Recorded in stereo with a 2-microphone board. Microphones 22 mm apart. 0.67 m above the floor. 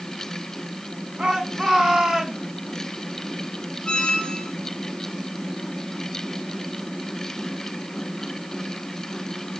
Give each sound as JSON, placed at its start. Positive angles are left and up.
{"t": 1.2, "sound": "a shout", "side_deg": -40, "distance_m": 7.0}
{"t": 3.9, "sound": "a squeak", "side_deg": 40, "distance_m": 3.0}